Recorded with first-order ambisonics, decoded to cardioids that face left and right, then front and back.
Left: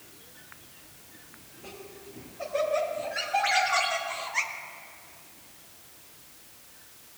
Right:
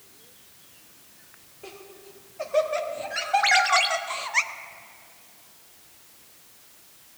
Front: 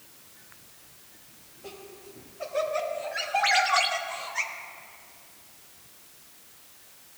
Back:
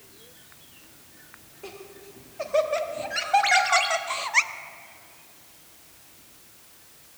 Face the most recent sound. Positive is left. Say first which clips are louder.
# right 6 dB, front 2 dB
turn(degrees=-95)